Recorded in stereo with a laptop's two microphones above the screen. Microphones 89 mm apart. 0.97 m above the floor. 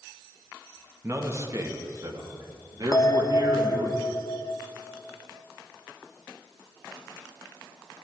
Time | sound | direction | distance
1.0 | a man speaking | 30° right (ahead or behind) | 1.6 m
2.9 | a bell | 40° left (ahead or behind) | 0.6 m